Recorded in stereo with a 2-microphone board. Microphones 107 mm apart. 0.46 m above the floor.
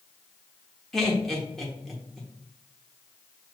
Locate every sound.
0.9 s laughter: 5° left (ahead or behind), 0.9 m